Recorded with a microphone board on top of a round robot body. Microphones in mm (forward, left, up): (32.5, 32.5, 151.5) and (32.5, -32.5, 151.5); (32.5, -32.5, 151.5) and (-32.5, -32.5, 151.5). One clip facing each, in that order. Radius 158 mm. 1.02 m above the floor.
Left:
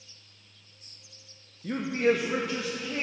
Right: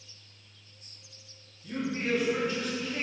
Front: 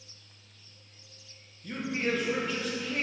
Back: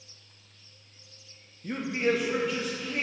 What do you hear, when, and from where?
1.6 s a man speaking: 120° left, 0.6 m; by 3.0 s 90° left, 1.2 m